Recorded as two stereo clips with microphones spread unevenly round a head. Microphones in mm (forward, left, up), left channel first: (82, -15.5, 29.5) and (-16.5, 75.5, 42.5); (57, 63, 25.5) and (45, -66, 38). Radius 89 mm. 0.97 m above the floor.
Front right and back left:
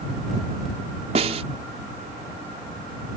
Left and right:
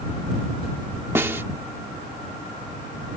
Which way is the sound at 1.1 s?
170° right.